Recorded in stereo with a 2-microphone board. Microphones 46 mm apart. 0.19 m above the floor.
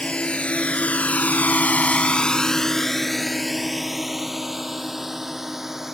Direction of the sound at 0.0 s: 25° left (ahead or behind).